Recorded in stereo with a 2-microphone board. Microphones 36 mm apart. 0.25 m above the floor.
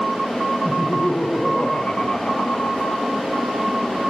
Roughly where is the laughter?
Left.